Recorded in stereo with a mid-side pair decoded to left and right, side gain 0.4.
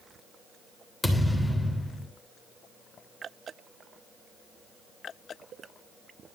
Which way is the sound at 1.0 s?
Straight ahead.